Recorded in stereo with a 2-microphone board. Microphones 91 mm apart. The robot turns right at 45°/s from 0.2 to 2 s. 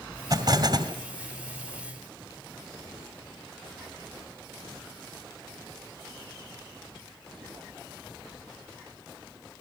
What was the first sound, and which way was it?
An explosion, 50° right (ahead or behind).